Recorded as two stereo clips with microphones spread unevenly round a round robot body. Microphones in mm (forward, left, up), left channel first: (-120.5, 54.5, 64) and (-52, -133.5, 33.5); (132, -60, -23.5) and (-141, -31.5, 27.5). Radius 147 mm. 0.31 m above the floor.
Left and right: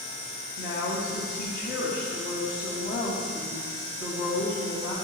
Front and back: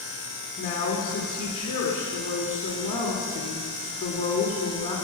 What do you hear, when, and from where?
0.6 s a woman speaking: 65° left, 2 m